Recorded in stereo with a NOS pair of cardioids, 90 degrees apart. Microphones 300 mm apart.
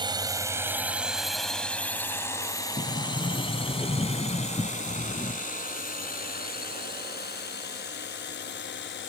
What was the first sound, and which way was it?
A drone, 15° right.